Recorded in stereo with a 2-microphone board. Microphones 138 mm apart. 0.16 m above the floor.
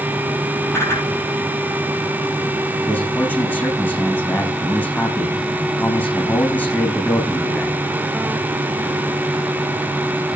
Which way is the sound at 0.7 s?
20° left (ahead or behind).